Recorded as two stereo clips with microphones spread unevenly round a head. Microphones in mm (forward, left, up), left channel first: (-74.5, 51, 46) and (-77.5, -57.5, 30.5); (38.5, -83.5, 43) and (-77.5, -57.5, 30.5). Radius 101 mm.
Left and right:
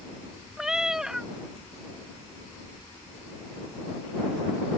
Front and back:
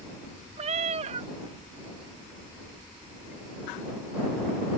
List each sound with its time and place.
0.6 s a cat meowing: 175° left